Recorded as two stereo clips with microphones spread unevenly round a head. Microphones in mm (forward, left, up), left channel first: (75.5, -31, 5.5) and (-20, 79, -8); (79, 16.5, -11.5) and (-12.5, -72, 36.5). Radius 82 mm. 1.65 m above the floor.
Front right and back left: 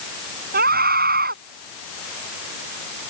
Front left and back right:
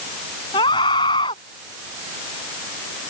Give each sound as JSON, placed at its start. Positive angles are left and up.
{"t": 0.5, "sound": "a scream", "azimuth_deg": 110}